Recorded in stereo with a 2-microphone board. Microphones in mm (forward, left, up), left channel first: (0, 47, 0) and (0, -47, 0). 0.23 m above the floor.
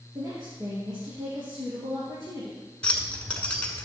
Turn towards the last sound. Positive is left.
turn(degrees=15)  # may be behind; listen again after turning